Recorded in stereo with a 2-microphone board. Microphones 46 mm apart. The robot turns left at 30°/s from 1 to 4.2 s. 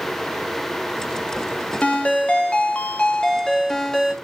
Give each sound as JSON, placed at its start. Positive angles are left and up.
{"t": 1.8, "sound": "a ringtone", "side_deg": 30, "distance_m": 0.8}